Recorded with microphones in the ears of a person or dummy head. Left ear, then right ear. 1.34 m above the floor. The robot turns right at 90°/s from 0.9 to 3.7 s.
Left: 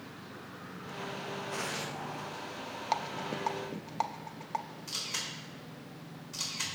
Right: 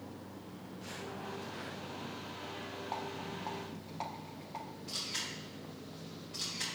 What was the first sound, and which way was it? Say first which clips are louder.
A rattle: left 9 dB; 65° left (ahead or behind).